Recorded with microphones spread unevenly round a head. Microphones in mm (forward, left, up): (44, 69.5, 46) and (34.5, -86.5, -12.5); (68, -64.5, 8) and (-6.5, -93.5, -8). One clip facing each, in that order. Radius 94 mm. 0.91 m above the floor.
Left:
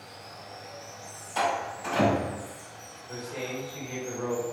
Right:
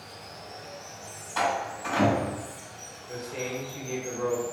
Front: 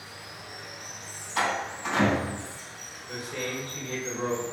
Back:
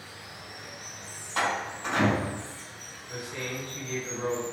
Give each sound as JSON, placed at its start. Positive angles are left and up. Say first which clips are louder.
{"t": 0.0, "sound": "running water", "louder": "right 1 dB, front 1 dB", "azimuth_deg": -50, "distance_m": 0.9}
{"t": 1.4, "sound": "a door slam", "louder": "even, front 1 dB", "azimuth_deg": 150, "distance_m": 1.8}
{"t": 3.1, "sound": "a man speaking", "louder": "right 1 dB, front 2 dB", "azimuth_deg": -20, "distance_m": 1.2}